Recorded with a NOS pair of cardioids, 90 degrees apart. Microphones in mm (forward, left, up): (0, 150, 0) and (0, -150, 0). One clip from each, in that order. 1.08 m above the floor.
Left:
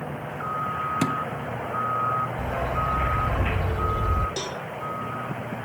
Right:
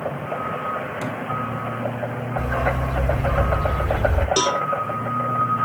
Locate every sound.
1.0 s a thud: 70° left, 1.2 m
2.4 s a dog barking: 30° right, 1.4 m
4.4 s a cowbell: 55° right, 0.8 m